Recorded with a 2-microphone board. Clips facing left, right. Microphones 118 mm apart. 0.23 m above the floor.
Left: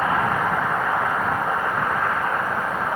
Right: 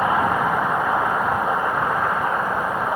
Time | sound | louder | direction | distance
0.0 | a vehicle | right 2 dB | 15° right (ahead or behind) | ?